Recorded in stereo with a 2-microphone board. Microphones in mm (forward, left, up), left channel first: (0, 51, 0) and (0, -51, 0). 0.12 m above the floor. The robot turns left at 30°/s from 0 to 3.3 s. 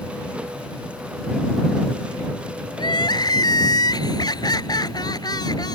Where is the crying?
50° left (ahead or behind); by 5.8 s 45° left (ahead or behind).